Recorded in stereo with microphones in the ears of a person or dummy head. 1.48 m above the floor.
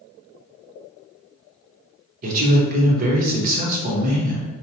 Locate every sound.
2.2 s a man speaking: 45° right (ahead or behind), 0.8 m